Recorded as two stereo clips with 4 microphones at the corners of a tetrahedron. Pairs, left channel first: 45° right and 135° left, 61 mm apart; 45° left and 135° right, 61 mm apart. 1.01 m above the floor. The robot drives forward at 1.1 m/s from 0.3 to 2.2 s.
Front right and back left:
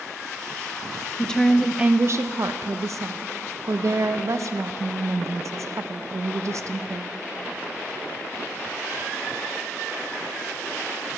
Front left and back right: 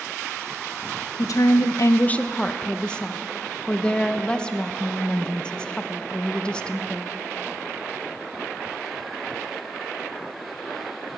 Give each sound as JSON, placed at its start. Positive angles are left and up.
{"t": 1.2, "sound": "a woman speaking", "azimuth_deg": 25, "distance_m": 1.0}